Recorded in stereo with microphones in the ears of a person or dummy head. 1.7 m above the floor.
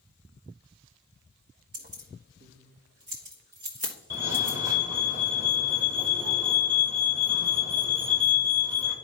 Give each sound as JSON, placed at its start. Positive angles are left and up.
{"t": 1.7, "sound": "keys jangling", "side_deg": -40, "distance_m": 1.2}
{"t": 4.1, "sound": "a fire alarm", "side_deg": -15, "distance_m": 1.1}